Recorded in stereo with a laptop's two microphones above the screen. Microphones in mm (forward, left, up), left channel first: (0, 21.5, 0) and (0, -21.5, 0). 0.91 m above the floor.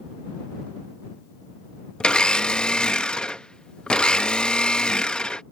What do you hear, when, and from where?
2.0 s a blender: 20° left (ahead or behind)